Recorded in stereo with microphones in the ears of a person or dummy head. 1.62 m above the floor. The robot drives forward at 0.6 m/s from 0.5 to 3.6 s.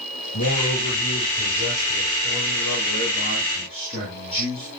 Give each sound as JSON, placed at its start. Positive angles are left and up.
{"t": 0.3, "sound": "a man speaking", "side_deg": 45, "distance_m": 5.5}